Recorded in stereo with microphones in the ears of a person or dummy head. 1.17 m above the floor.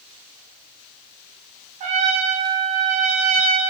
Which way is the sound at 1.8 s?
35° right (ahead or behind).